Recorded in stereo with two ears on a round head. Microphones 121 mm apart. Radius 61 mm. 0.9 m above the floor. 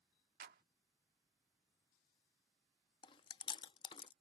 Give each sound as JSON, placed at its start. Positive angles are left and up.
{"t": 0.4, "sound": "a clap", "side_deg": -80}
{"t": 3.0, "sound": "chewing", "side_deg": 35}